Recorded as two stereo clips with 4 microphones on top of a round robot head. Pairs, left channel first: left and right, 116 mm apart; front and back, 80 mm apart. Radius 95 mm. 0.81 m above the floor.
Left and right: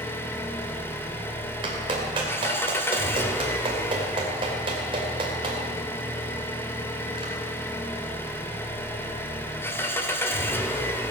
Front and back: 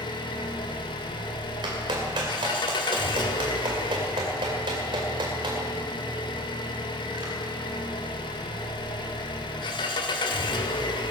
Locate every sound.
0.0 s an engine running: 20° left, 1.7 m
1.6 s a clap: 140° right, 2.5 m